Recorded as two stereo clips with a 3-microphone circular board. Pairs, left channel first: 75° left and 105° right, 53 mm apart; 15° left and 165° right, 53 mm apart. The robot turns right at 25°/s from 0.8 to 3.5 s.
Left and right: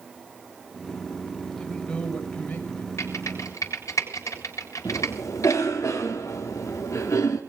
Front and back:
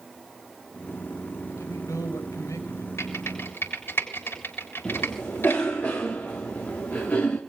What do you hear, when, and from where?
1.5 s a man speaking: 5° right, 6 m; by 2.9 s 30° left, 6 m
3.0 s typing on a keyboard: 45° left, 7 m; by 5.6 s 60° left, 7 m
4.8 s a cough: 70° left, 4 m